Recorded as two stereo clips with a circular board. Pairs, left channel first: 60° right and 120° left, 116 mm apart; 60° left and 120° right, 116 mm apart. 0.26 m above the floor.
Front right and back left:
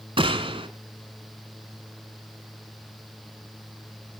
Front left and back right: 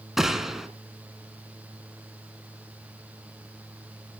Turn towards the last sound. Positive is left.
turn(degrees=155)